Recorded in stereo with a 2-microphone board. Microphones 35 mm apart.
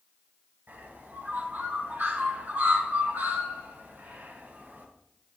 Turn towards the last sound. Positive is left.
turn(degrees=-75)  # may be behind; listen again after turning